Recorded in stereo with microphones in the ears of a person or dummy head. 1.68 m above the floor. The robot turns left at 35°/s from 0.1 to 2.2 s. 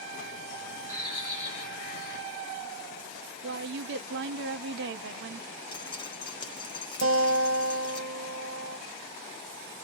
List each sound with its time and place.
0.9 s a bird: 155° left, 1.7 m; by 2.2 s 110° left, 1.7 m
3.4 s a woman speaking: 65° right (ahead or behind), 0.6 m
5.7 s dripping: 20° left (ahead or behind), 1.2 m
7.0 s a guitar: 85° right, 1.5 m